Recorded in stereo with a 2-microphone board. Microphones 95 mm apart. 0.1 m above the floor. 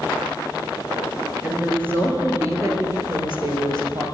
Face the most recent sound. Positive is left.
turn(degrees=-50)  # may be behind; listen again after turning